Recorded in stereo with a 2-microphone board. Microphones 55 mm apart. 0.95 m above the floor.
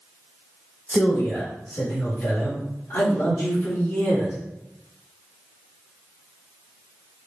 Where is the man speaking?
30° left (ahead or behind), 1.0 m; by 4.3 s 70° left (ahead or behind), 2.5 m.